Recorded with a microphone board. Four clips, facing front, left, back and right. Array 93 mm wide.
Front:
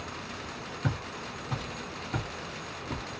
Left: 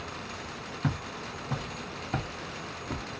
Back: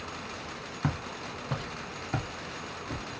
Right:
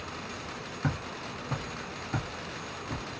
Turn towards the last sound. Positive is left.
turn(degrees=85)